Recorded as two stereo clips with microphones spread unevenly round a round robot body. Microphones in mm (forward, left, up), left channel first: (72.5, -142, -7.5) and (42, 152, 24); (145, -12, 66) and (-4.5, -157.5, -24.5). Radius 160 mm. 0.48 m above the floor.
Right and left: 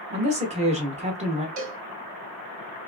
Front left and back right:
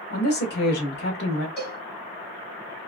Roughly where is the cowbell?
Behind left.